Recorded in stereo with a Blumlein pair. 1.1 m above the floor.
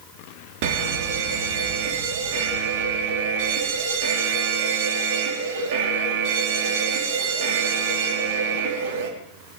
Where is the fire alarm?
45° right, 3.5 m.